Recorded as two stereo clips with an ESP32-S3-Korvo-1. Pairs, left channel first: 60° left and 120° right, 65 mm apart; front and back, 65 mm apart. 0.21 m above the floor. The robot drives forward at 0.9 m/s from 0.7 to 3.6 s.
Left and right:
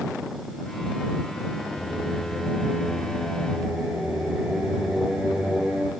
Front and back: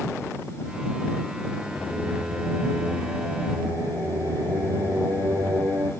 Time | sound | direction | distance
1.8 | singing | 105° left | 0.6 m